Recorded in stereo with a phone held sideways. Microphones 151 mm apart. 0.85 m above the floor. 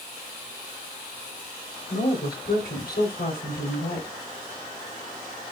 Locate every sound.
1.9 s a woman speaking: 85° left, 3.5 m